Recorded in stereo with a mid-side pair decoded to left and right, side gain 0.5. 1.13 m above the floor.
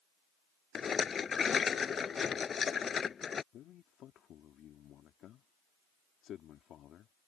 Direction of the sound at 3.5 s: 60° left.